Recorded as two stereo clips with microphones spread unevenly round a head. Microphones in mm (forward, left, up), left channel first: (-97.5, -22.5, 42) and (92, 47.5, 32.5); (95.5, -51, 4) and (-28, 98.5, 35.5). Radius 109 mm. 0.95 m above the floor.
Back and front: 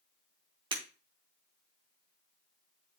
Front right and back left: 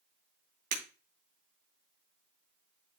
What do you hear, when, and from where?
0.7 s breaking glass: 90° left, 3 m